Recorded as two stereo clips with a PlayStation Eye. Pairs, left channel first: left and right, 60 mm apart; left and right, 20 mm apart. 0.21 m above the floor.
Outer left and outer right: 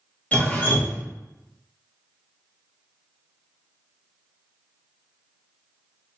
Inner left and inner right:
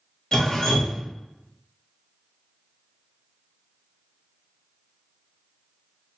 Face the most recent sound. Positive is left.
turn(degrees=25)  # may be behind; listen again after turning